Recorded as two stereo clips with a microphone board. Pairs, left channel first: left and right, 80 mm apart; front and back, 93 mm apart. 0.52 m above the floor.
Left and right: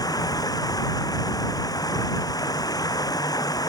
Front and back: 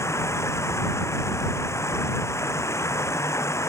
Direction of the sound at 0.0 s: 55° left.